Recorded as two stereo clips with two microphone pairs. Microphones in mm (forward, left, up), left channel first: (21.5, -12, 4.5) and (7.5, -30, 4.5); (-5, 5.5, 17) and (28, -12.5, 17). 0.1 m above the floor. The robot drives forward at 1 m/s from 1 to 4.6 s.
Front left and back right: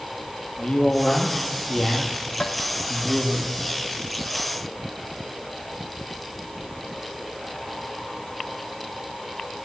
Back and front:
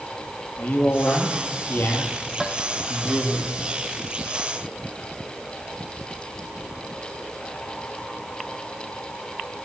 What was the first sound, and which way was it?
A man speaking, 110° left.